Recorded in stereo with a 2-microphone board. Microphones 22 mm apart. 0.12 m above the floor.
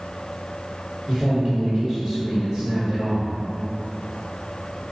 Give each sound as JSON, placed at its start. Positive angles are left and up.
{"t": 1.1, "sound": "a man speaking", "side_deg": -35, "distance_m": 1.4}